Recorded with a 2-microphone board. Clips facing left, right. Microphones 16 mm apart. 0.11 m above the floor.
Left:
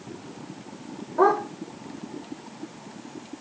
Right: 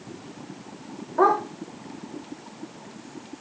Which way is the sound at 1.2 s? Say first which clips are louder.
Even; 25° right (ahead or behind).